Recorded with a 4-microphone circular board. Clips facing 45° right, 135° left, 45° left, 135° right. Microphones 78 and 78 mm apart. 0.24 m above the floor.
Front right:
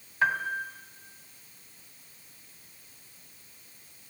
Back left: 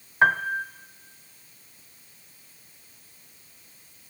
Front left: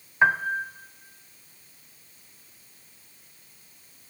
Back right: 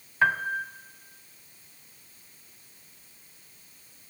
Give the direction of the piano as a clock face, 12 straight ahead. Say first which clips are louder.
Back left 6 dB, front left 3 dB; 8 o'clock.